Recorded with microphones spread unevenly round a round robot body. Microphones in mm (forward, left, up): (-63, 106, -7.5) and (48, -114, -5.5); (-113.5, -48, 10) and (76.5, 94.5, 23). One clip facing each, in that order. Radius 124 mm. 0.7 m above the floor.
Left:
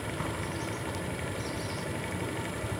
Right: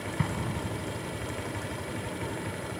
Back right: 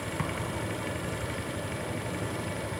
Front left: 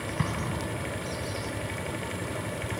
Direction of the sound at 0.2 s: 30° right.